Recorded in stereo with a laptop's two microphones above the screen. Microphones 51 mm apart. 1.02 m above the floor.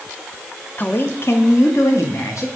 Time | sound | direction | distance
0.8 | a man speaking | 30° left (ahead or behind) | 0.6 m